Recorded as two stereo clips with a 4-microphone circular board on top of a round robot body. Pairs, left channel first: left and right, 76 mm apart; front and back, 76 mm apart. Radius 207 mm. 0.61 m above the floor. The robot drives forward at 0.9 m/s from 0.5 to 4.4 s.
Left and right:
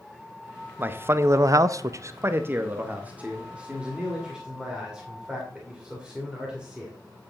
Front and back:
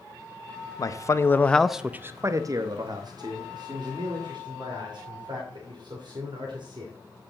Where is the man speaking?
30° right, 1.1 m; by 6.9 s 170° right, 2.5 m.